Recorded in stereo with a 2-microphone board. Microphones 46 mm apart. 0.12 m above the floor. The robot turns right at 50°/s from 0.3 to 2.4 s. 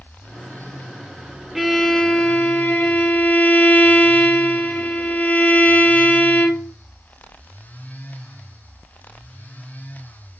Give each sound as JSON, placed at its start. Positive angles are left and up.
{"t": 1.6, "sound": "a violin", "azimuth_deg": -5, "distance_m": 0.6}